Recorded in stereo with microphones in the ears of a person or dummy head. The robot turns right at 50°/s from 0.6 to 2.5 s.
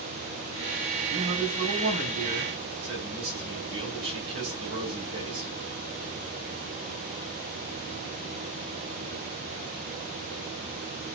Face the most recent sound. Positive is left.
turn(degrees=-75)